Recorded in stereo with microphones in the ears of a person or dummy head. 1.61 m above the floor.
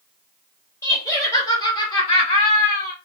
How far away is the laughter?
About 1.7 m.